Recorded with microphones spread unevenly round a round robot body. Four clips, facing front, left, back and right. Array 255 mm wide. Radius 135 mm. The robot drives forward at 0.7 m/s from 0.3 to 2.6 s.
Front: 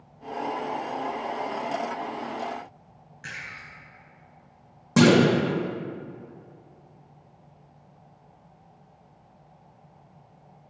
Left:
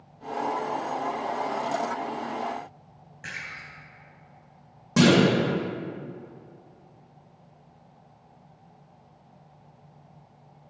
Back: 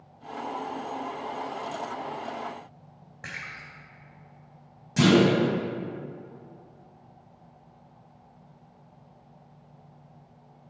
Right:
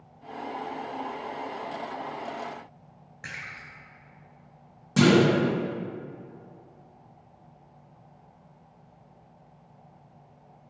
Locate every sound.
3.2 s a splash: 170° right, 2.5 m
5.0 s a clunk: 20° left, 2.5 m